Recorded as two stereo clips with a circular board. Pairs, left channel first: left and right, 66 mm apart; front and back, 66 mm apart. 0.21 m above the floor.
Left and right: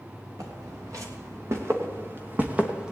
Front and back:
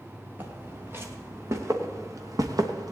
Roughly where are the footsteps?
Behind right.